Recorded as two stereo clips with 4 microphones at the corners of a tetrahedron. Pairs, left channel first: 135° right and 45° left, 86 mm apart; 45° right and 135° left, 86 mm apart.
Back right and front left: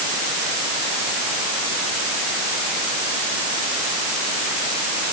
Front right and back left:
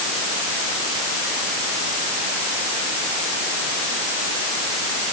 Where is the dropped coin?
No dropped coin in this recording.